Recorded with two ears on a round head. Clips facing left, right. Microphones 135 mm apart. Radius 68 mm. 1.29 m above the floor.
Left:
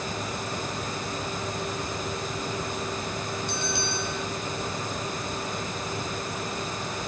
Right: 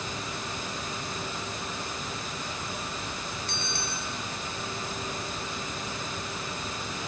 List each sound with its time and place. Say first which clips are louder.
3.5 s a bell: left 5 dB; 15° left (ahead or behind), 4 m